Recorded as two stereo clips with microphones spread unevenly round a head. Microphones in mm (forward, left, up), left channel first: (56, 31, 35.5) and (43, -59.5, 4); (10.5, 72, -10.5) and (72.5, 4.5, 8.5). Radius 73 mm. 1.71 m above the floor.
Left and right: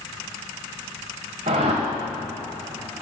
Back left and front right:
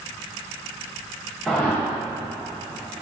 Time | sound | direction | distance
1.5 | a whoosh | 135° right | 2 m